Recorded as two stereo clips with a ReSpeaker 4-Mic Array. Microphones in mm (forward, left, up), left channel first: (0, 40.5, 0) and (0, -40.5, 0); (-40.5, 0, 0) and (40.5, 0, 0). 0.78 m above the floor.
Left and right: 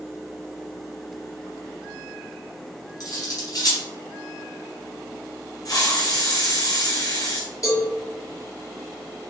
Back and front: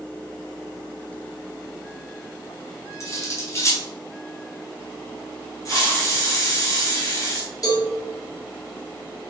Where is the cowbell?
140° left, 2.5 m.